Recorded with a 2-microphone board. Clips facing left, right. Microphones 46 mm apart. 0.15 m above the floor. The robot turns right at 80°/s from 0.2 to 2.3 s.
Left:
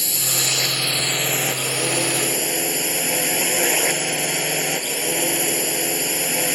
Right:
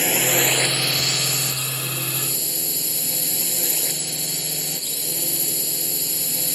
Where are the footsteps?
I don't hear footsteps.